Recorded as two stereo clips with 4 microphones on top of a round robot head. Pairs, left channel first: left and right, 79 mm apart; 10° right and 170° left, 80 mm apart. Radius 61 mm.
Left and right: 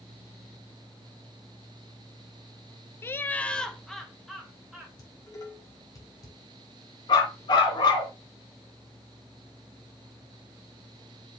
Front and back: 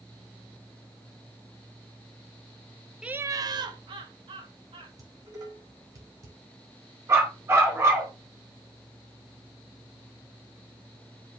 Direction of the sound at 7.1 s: 115° left.